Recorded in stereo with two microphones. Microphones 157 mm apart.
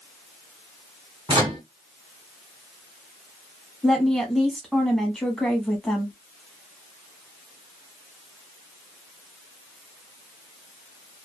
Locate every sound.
1.3 s a microwave: 30° right (ahead or behind), 1.2 m
3.8 s a woman speaking: centre (ahead or behind), 1.1 m